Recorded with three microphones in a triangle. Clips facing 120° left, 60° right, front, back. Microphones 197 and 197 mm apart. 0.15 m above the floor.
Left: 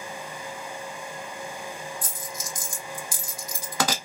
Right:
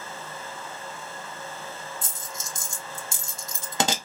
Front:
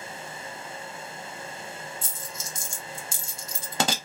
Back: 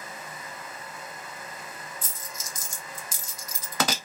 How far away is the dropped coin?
About 0.7 m.